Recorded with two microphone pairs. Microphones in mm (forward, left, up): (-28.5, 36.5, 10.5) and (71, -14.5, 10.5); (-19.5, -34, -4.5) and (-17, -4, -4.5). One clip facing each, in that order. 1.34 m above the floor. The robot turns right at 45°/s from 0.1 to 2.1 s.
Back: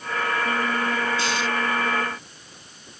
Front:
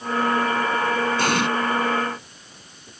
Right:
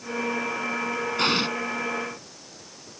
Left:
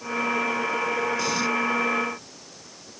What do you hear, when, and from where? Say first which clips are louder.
1.2 s an explosion: front 5 dB, right 2 dB; 60° right; by 1.5 s 50° right